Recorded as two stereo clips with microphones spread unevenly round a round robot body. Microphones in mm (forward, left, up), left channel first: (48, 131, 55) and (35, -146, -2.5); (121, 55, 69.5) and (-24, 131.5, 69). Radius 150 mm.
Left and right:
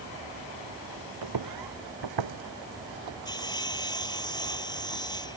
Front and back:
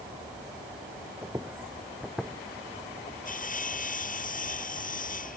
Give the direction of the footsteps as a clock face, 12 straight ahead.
4 o'clock.